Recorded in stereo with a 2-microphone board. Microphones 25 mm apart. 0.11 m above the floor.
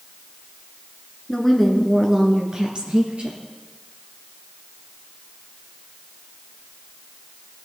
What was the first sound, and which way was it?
A woman speaking, 10° left (ahead or behind).